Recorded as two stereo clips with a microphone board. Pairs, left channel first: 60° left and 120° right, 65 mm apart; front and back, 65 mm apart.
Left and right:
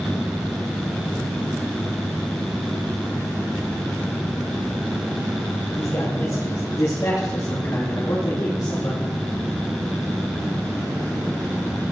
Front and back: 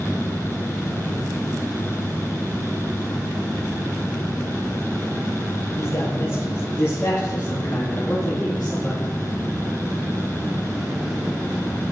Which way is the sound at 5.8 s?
35° left.